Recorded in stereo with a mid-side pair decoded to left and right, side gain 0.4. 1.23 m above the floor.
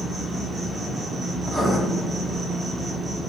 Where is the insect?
35° right, 1.6 m.